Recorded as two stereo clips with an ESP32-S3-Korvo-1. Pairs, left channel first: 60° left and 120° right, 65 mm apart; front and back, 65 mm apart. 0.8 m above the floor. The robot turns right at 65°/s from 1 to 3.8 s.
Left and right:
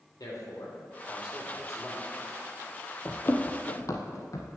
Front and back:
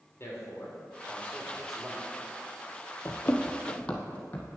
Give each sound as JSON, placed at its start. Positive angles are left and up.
{"t": 0.2, "sound": "a man speaking", "azimuth_deg": 45, "distance_m": 3.0}
{"t": 3.0, "sound": "running footsteps", "azimuth_deg": 25, "distance_m": 0.9}